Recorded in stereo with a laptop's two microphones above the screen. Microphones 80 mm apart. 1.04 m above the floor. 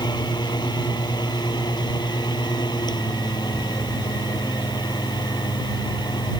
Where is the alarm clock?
I don't hear an alarm clock.